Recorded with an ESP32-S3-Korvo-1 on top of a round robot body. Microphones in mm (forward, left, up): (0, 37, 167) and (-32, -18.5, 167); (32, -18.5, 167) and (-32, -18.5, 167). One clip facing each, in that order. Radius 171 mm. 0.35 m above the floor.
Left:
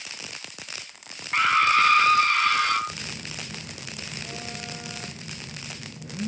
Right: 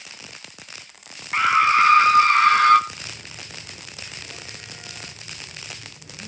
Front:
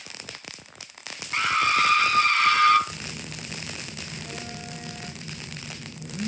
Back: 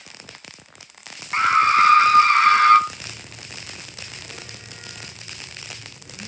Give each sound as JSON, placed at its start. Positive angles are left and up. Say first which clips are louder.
{"t": 1.3, "sound": "a scream", "louder": "right 3 dB, back 7 dB", "azimuth_deg": 165, "distance_m": 1.4}
{"t": 2.9, "sound": "a phone buzzing", "louder": "left 2 dB, front 2 dB", "azimuth_deg": 30, "distance_m": 5.5}